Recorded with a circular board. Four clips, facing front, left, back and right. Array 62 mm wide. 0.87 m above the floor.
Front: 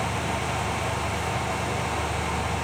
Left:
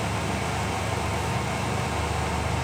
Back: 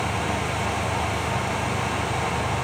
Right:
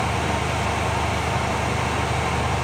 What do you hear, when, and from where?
Only background noise.